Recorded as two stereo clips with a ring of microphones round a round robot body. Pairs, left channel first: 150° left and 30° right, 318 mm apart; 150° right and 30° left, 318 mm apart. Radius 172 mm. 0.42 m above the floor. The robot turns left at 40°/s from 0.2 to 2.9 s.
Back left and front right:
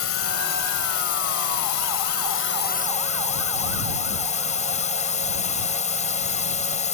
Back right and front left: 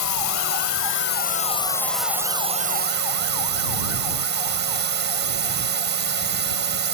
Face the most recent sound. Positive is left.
turn(degrees=85)